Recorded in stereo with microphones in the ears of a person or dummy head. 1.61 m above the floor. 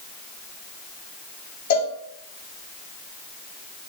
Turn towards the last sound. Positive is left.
turn(degrees=40)  # may be behind; listen again after turning